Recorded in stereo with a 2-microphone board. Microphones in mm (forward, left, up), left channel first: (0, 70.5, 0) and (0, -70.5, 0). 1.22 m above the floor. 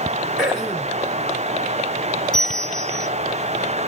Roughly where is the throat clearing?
Centre.